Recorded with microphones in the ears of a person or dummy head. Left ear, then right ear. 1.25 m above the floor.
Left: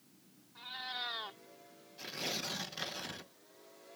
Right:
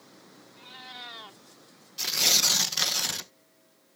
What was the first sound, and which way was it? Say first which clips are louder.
A cat meowing: left 2 dB; 5° left (ahead or behind).